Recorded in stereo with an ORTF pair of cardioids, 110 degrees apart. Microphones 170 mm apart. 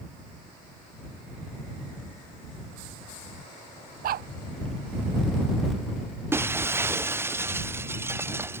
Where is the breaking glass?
15° right.